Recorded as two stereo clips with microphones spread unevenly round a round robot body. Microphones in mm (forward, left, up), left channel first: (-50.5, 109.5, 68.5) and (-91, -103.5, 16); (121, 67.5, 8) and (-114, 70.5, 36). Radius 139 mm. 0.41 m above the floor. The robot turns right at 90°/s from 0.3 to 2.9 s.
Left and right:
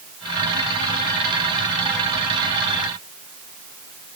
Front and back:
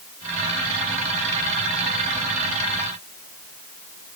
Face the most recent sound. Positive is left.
No sound to turn to.